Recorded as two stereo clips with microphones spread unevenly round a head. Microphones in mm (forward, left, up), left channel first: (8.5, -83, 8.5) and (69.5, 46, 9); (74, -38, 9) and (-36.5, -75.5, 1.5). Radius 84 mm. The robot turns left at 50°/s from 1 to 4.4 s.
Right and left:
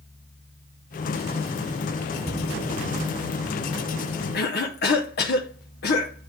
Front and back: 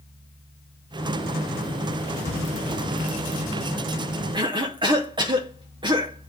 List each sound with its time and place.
2.2 s a cupboard door: 160° right, 2.5 m; by 2.5 s 175° right, 2.5 m
4.3 s a cough: 105° right, 0.8 m; by 6.3 s 110° right, 0.8 m